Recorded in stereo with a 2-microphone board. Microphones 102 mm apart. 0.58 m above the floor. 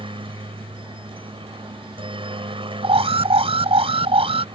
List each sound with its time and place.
0.0 s a helicopter: 60° right (ahead or behind)
2.8 s an alarm: 75° right (ahead or behind)